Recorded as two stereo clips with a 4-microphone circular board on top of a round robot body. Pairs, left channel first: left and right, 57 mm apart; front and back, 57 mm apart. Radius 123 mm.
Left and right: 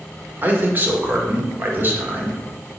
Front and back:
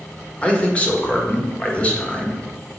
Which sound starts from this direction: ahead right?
A man speaking, at 0.4 s.